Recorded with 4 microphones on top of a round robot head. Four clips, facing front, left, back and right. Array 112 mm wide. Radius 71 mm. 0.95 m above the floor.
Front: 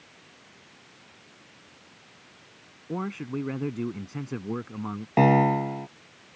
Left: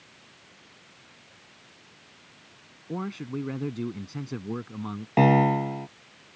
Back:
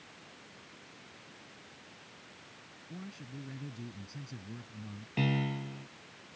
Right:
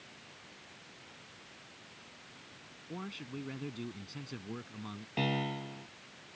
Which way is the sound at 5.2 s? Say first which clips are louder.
Left 15 dB, front 14 dB; 40° left.